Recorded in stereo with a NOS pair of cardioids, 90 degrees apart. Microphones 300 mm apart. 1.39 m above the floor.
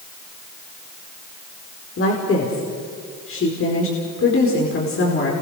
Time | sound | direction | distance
2.0 | a woman speaking | 45° left | 5 m